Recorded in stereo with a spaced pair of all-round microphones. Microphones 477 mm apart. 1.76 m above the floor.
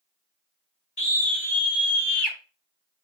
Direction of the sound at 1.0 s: 55° left (ahead or behind).